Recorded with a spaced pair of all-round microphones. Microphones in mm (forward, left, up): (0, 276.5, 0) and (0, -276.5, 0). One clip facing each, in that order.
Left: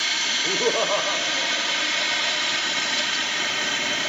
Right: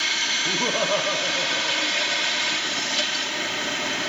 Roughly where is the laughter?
Centre.